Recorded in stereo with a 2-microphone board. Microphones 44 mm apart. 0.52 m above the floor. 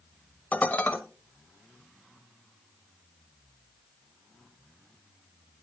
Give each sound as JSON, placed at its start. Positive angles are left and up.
{"t": 0.5, "sound": "dishes clattering", "side_deg": 35, "distance_m": 1.3}